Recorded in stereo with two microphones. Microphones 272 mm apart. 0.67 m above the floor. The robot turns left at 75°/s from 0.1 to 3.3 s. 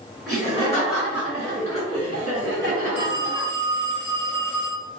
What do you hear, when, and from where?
0.3 s laughter: 55° left, 1.8 m; by 3.5 s 175° right, 1.8 m
3.0 s a phone ringing: 35° right (ahead or behind), 1.4 m; by 4.9 s 60° right (ahead or behind), 1.4 m